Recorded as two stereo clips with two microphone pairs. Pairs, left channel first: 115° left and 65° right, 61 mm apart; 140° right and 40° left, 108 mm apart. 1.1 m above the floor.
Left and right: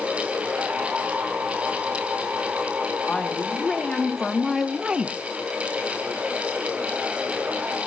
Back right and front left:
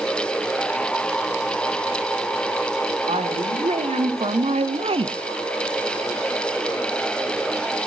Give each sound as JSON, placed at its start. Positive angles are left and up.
{"t": 3.1, "sound": "a woman speaking", "azimuth_deg": 40, "distance_m": 3.0}